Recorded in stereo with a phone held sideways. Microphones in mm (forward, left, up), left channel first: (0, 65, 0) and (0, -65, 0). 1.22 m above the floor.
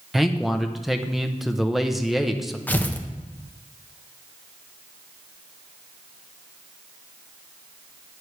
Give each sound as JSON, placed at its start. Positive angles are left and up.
{"t": 0.1, "sound": "a man speaking", "side_deg": 0, "distance_m": 0.7}
{"t": 2.7, "sound": "tearing paper", "side_deg": 15, "distance_m": 0.8}